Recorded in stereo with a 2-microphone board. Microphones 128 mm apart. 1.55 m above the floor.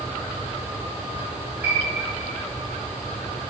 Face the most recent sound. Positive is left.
turn(degrees=-15)  # may be behind; listen again after turning